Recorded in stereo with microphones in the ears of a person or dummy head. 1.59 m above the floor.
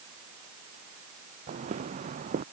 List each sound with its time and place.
1.5 s footsteps: 40° right (ahead or behind)